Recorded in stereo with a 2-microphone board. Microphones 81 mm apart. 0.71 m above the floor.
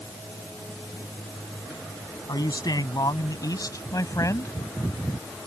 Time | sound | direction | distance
2.3 | a man speaking | 55° left (ahead or behind) | ?